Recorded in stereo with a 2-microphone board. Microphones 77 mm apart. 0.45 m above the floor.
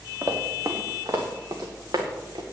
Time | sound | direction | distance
0.2 | running footsteps | 45° right (ahead or behind) | 2.5 m